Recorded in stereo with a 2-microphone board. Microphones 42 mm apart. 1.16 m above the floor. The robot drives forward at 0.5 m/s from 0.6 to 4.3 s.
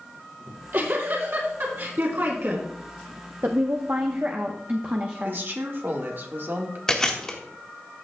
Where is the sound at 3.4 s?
55° right (ahead or behind), 0.8 m; by 5.4 s 40° right (ahead or behind), 1.1 m.